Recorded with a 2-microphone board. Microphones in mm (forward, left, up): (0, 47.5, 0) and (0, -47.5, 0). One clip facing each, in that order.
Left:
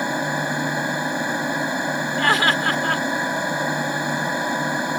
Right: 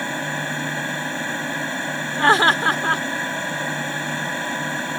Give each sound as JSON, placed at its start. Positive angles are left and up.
{"t": 0.0, "sound": "an aircraft", "side_deg": 15}
{"t": 2.2, "sound": "laughter", "side_deg": -25}